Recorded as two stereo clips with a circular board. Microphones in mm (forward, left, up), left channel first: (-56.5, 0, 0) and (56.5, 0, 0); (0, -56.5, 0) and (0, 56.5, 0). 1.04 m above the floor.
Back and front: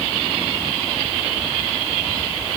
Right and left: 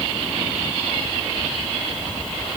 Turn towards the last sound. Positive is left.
No sound to turn to.